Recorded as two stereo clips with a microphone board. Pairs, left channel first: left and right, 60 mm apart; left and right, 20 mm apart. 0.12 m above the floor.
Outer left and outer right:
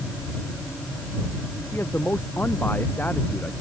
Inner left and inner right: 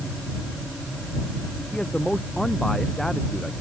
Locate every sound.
1.7 s a man speaking: 35° left (ahead or behind); by 3.5 s 30° left (ahead or behind)